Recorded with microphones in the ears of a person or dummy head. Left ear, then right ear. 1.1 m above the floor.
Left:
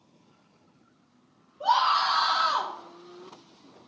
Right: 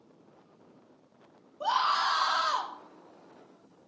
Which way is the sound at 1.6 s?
70° right (ahead or behind).